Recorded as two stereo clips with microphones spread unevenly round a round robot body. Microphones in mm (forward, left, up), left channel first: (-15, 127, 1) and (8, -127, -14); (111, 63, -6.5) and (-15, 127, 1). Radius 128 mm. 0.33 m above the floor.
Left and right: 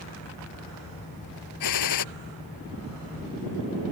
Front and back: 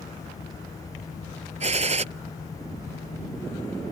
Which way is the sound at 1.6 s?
115° left.